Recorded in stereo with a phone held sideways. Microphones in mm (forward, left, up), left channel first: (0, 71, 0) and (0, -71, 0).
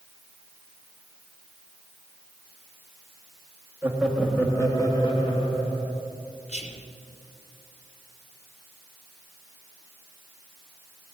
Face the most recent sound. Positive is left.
turn(degrees=50)  # may be behind; listen again after turning